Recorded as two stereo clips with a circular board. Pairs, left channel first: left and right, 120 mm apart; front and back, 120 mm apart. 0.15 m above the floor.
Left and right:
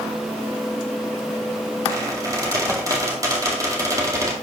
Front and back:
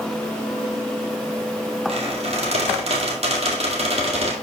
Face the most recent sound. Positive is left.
turn(degrees=-150)